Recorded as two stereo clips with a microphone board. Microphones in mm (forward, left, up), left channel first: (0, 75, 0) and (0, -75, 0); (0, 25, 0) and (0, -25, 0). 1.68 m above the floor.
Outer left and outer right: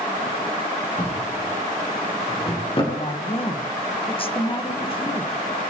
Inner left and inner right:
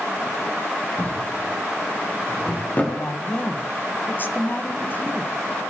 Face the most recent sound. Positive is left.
turn(degrees=35)  # may be behind; listen again after turning